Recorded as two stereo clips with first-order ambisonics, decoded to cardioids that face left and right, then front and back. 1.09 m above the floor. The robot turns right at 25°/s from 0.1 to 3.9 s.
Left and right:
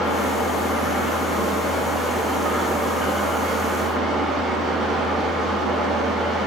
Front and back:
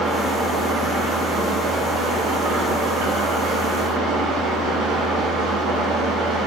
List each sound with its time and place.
0.0 s an engine running: 105° left, 3.5 m; by 6.5 s 160° right, 3.5 m